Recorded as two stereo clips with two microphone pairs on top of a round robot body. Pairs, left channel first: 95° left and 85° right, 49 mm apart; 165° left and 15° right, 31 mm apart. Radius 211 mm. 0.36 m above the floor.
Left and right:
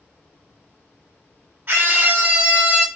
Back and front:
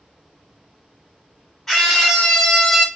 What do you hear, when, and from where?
1.7 s a scream: 120° right, 1.9 m; by 2.9 s 125° right, 1.3 m